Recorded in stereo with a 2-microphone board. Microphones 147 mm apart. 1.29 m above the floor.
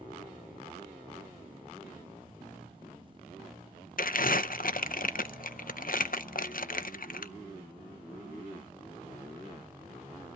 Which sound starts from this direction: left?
Crumpling, at 4.0 s.